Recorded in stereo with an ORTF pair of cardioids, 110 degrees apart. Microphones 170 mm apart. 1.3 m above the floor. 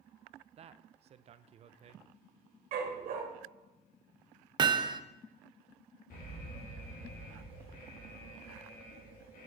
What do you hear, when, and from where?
0.6 s a man speaking: 40° right, 0.5 m
2.7 s a dog barking: 65° right, 2.5 m
4.6 s hammering: 25° right, 0.6 m
6.1 s an alarm: 60° left, 3 m